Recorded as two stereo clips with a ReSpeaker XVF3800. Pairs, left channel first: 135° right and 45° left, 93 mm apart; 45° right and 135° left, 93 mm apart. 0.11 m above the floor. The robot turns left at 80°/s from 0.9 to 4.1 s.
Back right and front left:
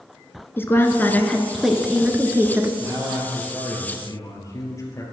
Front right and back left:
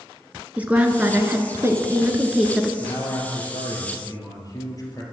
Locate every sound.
0.6 s a woman speaking: 170° right, 1.3 m; by 2.7 s 50° left, 1.3 m
2.8 s a man speaking: 15° left, 3 m; by 5.0 s 90° right, 3 m